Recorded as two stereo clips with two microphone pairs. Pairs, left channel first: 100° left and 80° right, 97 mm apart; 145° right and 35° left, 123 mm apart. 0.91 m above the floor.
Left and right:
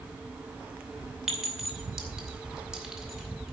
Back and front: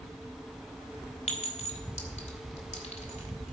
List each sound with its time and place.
1.3 s a clink: 165° right, 2.5 m